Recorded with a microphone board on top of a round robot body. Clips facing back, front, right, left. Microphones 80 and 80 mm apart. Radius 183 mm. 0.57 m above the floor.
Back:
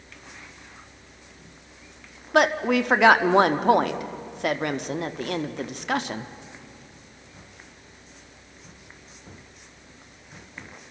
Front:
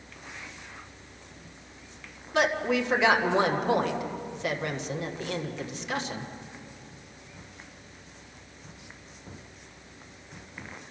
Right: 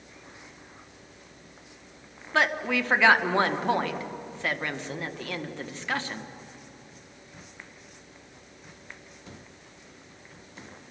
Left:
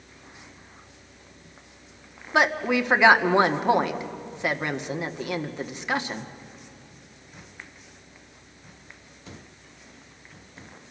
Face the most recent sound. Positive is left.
turn(degrees=160)